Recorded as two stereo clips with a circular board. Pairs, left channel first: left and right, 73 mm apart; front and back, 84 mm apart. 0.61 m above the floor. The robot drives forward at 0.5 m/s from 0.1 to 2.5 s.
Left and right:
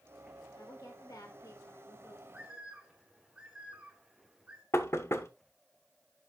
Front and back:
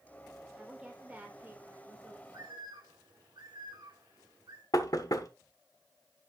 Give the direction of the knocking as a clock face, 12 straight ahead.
11 o'clock.